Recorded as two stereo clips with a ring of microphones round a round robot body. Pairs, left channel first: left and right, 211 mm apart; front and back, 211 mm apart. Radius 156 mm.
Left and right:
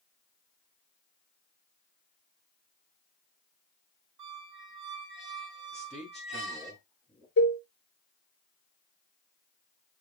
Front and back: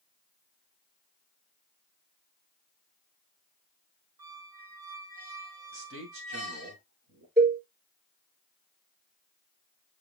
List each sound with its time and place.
4.2 s a squeak: 130° right, 2.5 m
5.7 s a man speaking: straight behind, 2.5 m
7.4 s a cowbell: 140° left, 4 m